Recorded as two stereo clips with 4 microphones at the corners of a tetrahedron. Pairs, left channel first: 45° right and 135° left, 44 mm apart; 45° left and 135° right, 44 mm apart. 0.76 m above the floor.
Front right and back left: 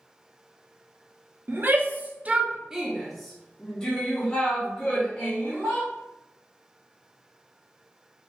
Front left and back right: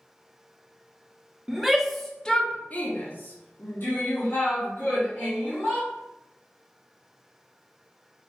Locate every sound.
1.5 s a shout: 145° left, 0.8 m; by 5.9 s 10° left, 1.8 m